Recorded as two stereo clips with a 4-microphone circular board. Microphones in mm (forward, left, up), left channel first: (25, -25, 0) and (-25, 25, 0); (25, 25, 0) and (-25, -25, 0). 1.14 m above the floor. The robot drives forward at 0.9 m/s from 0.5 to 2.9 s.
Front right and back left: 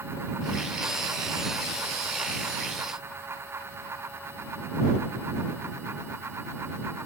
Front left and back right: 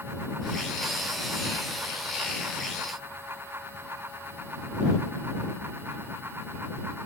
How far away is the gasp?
No gasp in this recording.